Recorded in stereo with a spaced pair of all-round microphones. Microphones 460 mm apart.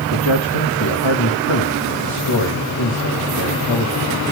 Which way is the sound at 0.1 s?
85° left.